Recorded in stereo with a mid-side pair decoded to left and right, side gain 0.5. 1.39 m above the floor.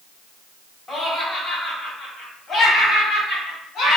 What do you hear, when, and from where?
0.9 s laughter: 20° left, 1.8 m; by 4.0 s 65° left, 2.5 m